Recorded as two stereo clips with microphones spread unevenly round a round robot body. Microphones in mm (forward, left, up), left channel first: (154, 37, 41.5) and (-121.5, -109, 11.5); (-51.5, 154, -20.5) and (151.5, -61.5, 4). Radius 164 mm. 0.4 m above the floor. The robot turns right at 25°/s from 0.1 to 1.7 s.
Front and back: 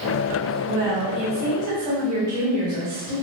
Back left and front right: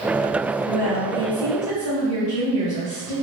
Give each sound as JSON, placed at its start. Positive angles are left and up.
{"t": 0.7, "sound": "a woman speaking", "azimuth_deg": -125, "distance_m": 1.5}